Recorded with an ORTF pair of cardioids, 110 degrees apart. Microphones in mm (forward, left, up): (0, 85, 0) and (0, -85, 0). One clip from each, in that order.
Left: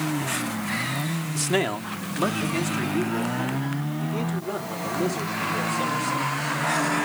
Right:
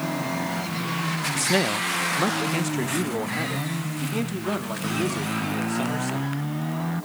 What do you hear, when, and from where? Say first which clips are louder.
1.4 s a man speaking: right 1 dB; straight ahead, 0.7 m; by 6.4 s 60° right, 4.5 m